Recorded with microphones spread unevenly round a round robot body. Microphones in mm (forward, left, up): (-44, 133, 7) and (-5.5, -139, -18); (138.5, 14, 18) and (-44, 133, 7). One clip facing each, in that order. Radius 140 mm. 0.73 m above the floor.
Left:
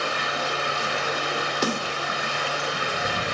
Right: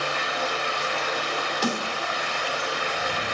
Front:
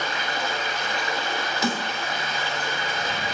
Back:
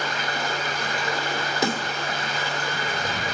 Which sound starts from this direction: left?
Running water, at 0.0 s.